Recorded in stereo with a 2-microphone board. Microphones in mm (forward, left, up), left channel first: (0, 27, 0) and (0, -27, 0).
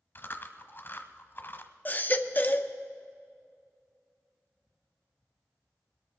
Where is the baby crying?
35° left (ahead or behind), 0.6 m.